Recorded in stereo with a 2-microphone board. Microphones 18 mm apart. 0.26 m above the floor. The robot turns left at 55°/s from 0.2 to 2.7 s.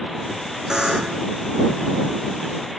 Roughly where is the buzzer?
Ahead right.